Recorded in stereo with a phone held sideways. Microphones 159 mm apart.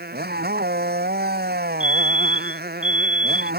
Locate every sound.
0.0 s a motorcycle: 75° right (ahead or behind)
1.8 s a fire alarm: 45° right (ahead or behind)